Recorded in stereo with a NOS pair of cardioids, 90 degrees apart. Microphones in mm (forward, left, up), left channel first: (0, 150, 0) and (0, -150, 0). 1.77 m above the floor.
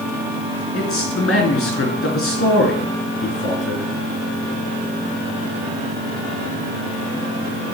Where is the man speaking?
45° left, 3.5 m.